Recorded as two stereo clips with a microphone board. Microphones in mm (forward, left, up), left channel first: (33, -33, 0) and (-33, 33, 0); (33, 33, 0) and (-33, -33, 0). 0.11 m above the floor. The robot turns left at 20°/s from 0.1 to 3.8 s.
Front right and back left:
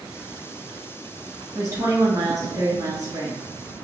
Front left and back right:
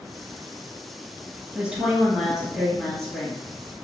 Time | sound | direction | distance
1.6 | a woman speaking | 160° left | 1.8 m